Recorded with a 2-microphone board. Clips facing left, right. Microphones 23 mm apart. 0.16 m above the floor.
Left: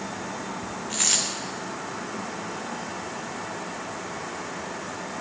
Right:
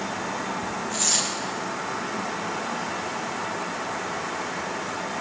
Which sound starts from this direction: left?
A dropped coin, at 0.9 s.